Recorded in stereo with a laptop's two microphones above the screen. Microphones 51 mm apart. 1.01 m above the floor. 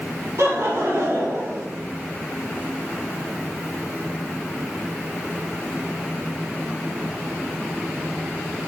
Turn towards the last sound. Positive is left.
turn(degrees=-75)  # may be behind; listen again after turning